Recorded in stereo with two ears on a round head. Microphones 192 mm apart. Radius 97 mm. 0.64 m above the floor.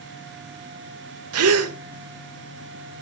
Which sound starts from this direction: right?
A gasp, at 1.3 s.